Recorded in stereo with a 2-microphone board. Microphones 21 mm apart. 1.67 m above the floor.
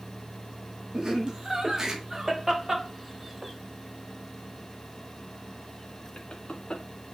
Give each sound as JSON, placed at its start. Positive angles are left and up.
{"t": 0.9, "sound": "laughter", "side_deg": -30, "distance_m": 3.5}